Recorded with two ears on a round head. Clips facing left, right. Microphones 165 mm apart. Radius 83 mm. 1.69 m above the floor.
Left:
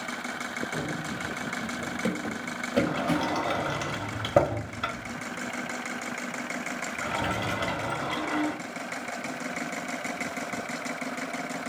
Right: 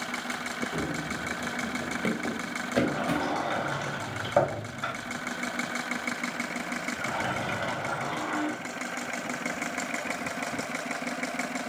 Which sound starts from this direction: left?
A sliding door, at 2.9 s.